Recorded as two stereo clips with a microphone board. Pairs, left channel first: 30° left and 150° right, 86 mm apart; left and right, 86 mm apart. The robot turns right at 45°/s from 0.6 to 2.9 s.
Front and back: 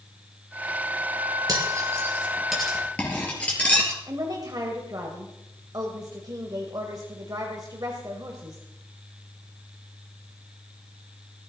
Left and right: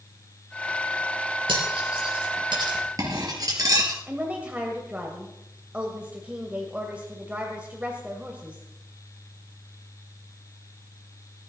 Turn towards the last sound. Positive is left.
turn(degrees=-160)